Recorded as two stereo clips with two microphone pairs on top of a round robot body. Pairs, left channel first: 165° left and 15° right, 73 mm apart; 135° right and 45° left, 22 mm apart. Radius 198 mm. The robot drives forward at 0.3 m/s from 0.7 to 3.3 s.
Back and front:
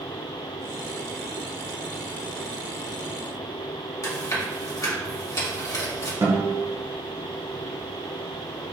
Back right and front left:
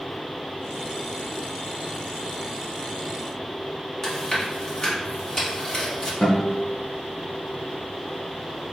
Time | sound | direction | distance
4.0 | chewing | 175° left | 1.9 m
6.2 | a guitar | 65° right | 1.4 m